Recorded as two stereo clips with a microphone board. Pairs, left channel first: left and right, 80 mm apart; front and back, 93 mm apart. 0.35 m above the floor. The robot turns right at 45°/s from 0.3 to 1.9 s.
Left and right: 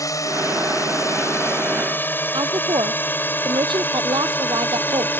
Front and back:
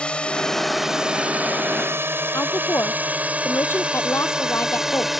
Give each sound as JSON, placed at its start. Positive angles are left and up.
{"t": 0.0, "sound": "a drone", "azimuth_deg": 75}
{"t": 2.3, "sound": "a woman speaking", "azimuth_deg": -65}